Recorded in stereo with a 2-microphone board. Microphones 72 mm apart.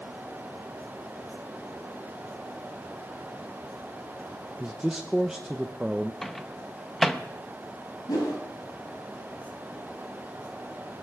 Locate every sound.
4.6 s a man speaking: 10° right (ahead or behind), 0.6 m
6.2 s a microwave: 5° left (ahead or behind), 0.6 m
8.1 s a whoosh: 80° left, 6.5 m